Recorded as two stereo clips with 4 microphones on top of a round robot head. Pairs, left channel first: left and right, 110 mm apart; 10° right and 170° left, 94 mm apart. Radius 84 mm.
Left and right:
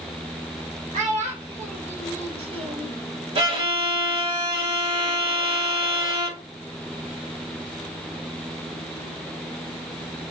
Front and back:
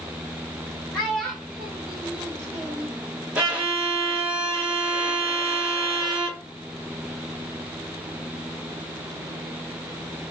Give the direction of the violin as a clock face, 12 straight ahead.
4 o'clock.